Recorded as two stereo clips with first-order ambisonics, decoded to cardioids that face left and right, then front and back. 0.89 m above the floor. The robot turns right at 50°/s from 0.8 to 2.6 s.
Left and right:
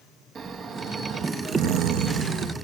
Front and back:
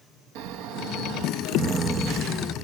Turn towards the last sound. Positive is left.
turn(degrees=-70)